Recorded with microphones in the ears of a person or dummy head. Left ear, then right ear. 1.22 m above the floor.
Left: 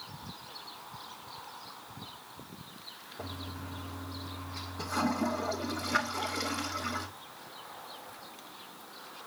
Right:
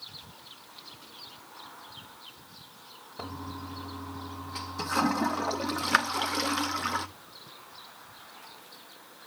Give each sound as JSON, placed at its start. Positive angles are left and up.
{"t": 3.2, "sound": "a toilet flushing", "side_deg": -55, "distance_m": 0.8}